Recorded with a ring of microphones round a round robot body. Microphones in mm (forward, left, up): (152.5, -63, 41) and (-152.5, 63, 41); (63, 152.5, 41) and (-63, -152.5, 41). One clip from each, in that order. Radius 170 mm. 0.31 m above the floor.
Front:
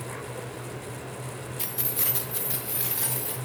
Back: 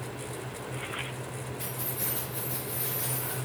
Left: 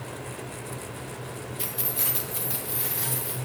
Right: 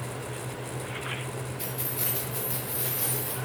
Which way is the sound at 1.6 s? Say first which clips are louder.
Front 5 dB, left 5 dB; straight ahead.